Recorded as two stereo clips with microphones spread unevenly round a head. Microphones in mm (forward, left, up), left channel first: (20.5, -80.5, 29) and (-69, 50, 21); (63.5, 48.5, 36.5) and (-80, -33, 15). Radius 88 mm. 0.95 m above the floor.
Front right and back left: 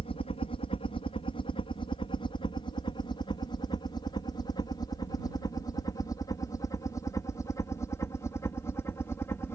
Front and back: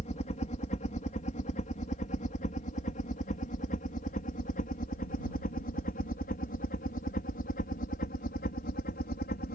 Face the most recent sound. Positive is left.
turn(degrees=20)